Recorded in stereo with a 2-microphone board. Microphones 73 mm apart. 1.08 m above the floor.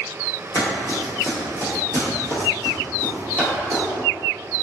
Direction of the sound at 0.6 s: 45° left (ahead or behind).